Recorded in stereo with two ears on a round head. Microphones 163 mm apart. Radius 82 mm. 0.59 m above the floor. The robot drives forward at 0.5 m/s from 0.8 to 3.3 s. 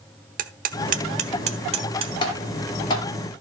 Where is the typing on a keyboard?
30° left (ahead or behind), 3 m; by 3.0 s 25° left (ahead or behind), 3 m.